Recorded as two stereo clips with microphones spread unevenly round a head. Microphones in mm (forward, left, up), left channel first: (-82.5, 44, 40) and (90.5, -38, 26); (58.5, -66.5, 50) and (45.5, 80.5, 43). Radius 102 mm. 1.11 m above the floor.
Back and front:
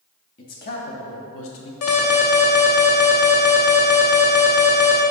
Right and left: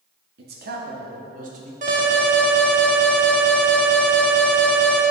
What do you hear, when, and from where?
0.4 s a man speaking: 110° left, 1.4 m; by 1.7 s 145° left, 1.0 m
1.8 s an alarm: 150° left, 1.0 m